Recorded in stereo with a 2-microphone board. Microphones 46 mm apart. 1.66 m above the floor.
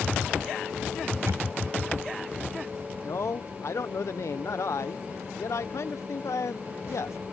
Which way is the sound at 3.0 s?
80° left.